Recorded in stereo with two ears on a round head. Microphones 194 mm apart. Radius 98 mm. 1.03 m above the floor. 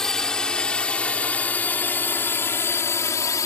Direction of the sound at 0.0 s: 5° left (ahead or behind).